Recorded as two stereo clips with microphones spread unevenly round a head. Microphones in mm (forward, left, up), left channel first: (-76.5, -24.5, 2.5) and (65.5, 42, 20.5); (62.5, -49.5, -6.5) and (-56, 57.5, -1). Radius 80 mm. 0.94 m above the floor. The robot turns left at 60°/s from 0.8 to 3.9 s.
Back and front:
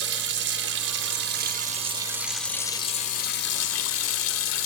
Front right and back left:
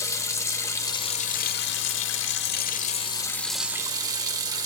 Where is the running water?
30° left, 1.2 m; by 4.7 s 155° right, 1.2 m.